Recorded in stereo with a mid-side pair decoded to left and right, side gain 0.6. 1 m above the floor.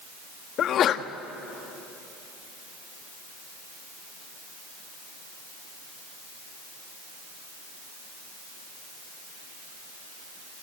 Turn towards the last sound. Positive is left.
turn(degrees=50)